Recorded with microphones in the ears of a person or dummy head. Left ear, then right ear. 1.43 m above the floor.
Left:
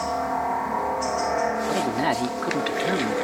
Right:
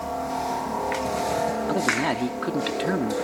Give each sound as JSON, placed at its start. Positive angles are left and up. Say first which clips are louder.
{"t": 0.0, "sound": "a helicopter", "louder": "left 3 dB", "side_deg": 60}
{"t": 1.7, "sound": "a man speaking", "louder": "even", "side_deg": 15}